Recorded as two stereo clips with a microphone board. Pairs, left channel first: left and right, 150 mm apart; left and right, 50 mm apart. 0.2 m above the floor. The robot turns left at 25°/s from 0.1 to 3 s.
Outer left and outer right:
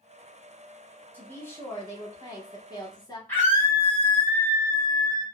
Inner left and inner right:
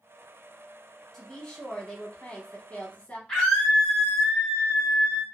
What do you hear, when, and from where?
1.1 s a woman speaking: 160° left, 1.1 m; by 3.2 s 115° left, 1.1 m
3.3 s a scream: 15° left (ahead or behind), 1.3 m